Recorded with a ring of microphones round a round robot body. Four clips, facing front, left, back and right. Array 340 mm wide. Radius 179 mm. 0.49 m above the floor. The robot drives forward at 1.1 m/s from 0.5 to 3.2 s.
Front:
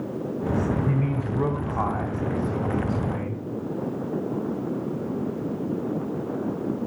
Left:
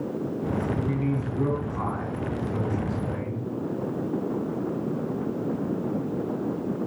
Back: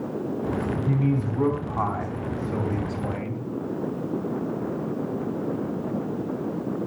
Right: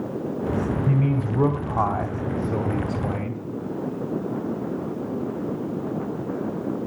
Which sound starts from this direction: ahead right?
A man speaking, at 0.9 s.